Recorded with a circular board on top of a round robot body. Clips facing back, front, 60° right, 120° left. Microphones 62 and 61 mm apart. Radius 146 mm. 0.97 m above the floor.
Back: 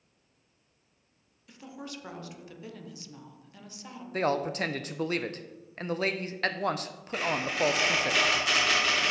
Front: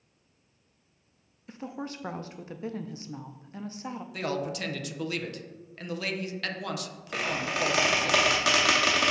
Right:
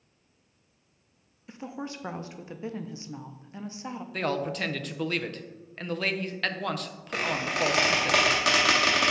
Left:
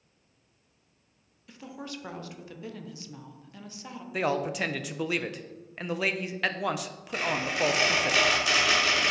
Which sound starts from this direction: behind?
A man speaking, at 4.1 s.